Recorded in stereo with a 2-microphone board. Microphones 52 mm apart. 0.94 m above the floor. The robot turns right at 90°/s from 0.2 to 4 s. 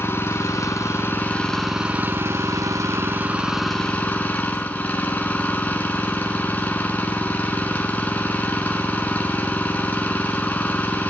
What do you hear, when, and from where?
0.0 s an engine running: 50° left, 3.5 m; by 11.1 s 30° left, 3.5 m